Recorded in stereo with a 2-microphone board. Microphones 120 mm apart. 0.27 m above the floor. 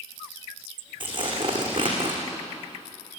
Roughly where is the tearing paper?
Right.